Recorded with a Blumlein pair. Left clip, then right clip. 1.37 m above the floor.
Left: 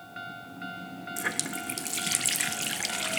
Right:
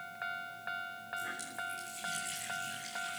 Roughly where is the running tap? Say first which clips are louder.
Left 8 dB; ahead left.